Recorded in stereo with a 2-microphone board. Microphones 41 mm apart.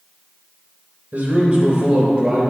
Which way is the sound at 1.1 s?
35° right (ahead or behind).